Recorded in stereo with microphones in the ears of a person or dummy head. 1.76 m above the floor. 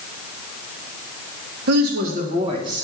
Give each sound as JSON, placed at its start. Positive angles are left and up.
{"t": 1.7, "sound": "a woman speaking", "side_deg": -55, "distance_m": 1.6}